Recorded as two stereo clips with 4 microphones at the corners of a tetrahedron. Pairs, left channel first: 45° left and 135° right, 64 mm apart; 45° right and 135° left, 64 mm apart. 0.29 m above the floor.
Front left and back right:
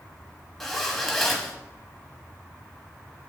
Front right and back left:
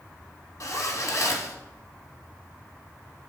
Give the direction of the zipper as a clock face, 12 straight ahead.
1 o'clock.